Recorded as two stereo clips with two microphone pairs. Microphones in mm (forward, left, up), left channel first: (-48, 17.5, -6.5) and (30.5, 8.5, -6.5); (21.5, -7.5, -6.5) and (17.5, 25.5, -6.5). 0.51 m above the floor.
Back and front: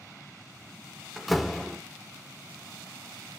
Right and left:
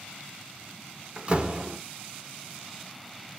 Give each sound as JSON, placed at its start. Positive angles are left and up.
{"t": 1.2, "sound": "a door slam", "azimuth_deg": 80, "distance_m": 0.7}